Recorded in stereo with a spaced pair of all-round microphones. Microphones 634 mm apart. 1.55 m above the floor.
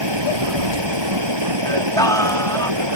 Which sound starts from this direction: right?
Running water, at 0.0 s.